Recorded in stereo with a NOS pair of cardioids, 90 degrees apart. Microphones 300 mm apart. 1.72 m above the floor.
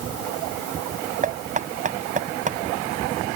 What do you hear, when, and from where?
1.2 s knocking: 25° right